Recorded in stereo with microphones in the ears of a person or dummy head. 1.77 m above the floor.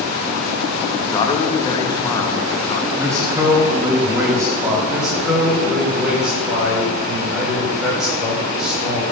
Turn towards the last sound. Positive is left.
turn(degrees=-10)  # may be behind; listen again after turning